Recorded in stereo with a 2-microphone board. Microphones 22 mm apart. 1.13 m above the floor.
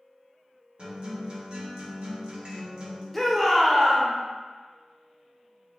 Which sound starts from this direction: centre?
A shout, at 3.1 s.